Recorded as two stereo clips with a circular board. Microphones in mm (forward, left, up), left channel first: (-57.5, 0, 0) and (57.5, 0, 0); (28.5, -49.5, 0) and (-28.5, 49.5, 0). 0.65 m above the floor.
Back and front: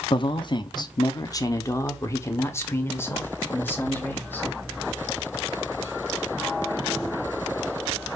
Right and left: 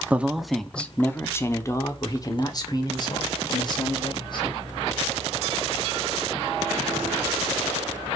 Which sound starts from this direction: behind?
A man speaking, at 0.1 s.